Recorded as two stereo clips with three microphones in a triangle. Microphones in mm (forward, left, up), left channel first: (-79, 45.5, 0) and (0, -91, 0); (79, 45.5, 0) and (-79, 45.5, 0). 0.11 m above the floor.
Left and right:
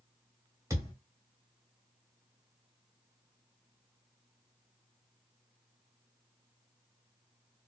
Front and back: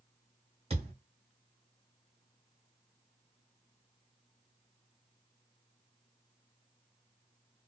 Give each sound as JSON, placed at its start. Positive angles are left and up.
{"t": 0.7, "sound": "a thud", "azimuth_deg": -130, "distance_m": 1.4}